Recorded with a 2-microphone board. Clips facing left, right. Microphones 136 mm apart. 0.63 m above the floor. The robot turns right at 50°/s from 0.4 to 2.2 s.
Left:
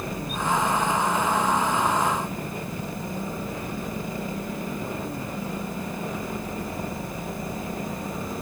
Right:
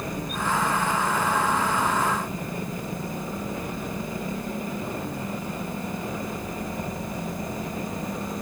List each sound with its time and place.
Only background noise.